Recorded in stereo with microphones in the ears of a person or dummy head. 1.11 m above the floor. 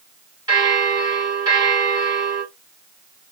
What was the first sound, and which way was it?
A bell, 20° right (ahead or behind).